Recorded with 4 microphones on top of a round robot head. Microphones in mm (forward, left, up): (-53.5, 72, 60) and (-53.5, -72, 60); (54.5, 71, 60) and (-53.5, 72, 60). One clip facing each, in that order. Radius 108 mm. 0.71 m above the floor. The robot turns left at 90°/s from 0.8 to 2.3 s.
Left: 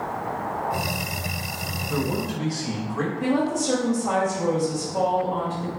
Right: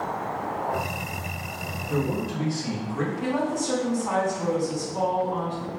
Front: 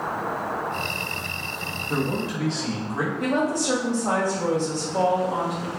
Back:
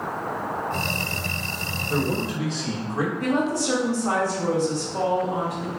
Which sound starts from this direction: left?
A woman speaking, at 3.2 s.